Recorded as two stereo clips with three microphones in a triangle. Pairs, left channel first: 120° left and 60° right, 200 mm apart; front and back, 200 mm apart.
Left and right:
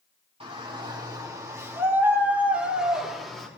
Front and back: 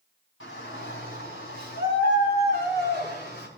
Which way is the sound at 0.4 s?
Straight ahead.